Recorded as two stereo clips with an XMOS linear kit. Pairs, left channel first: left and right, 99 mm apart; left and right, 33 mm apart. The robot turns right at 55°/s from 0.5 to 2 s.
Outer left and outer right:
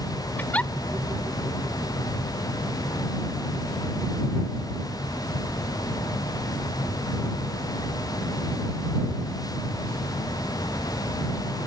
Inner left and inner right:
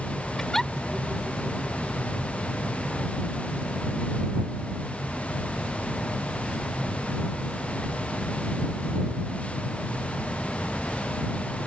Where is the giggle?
20° left (ahead or behind); by 0.7 s 10° left (ahead or behind).